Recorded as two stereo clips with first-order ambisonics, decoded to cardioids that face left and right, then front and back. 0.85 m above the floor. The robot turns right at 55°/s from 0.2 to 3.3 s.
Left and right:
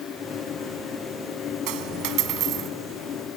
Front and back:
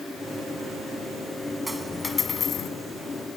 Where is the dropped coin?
100° right, 1.4 m; by 2.7 s 45° right, 1.4 m.